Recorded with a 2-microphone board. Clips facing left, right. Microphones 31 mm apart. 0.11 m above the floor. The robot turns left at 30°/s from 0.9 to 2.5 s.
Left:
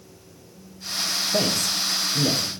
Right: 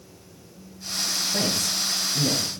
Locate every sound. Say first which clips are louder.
1.3 s a man speaking: left 4 dB; 70° left (ahead or behind), 3.5 m; by 2.4 s 55° left (ahead or behind), 3.5 m